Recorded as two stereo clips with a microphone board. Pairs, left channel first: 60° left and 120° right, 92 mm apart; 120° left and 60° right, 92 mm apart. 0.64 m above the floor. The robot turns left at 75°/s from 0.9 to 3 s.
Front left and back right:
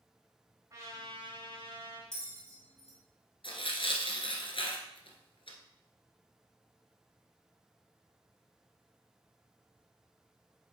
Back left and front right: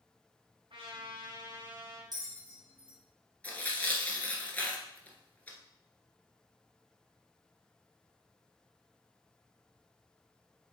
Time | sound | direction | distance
0.7 | a trumpet | 70° right | 4 m
2.1 | a bell | 75° right | 1.8 m
3.4 | tearing paper | 45° left | 1.5 m